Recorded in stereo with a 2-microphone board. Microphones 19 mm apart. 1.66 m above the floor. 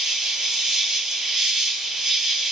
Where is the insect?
30° right (ahead or behind), 4.5 m.